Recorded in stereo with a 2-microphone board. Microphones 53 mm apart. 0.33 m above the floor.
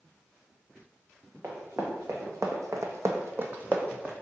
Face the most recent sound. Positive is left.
turn(degrees=-20)  # may be behind; listen again after turning